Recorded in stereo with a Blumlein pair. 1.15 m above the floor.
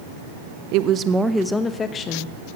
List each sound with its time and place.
0.7 s a woman speaking: 45° right, 0.6 m; by 2.4 s 30° left, 1.1 m